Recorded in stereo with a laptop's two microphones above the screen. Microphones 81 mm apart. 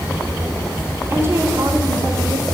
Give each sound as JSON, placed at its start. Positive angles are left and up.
{"t": 1.1, "sound": "a woman speaking", "side_deg": -30, "distance_m": 2.0}